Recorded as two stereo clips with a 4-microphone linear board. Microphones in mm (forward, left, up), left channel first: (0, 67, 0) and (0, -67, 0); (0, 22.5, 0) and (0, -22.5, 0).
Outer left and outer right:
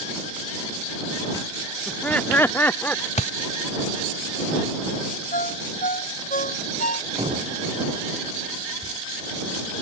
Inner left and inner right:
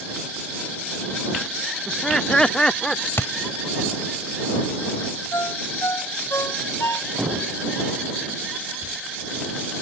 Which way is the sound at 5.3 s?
85° left.